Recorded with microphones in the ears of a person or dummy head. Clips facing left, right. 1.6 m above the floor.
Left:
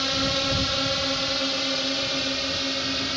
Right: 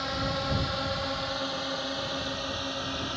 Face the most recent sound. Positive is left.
turn(degrees=30)  # may be behind; listen again after turning